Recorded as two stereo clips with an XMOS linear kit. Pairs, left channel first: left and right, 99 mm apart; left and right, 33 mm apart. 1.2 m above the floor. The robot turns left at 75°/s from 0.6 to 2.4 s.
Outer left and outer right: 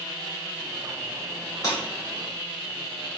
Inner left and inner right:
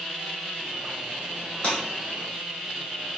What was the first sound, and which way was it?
Breaking glass, 35° left (ahead or behind).